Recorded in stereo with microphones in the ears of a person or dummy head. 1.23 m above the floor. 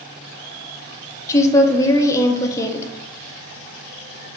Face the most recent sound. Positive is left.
turn(degrees=15)  # may be behind; listen again after turning